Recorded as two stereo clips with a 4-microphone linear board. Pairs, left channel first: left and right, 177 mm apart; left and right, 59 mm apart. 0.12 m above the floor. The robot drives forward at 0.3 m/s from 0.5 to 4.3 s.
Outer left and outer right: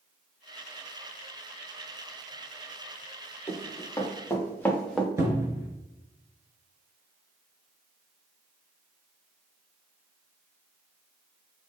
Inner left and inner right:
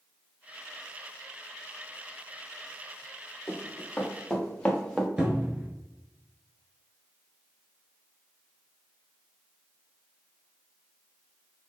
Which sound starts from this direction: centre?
A cupboard door, at 5.2 s.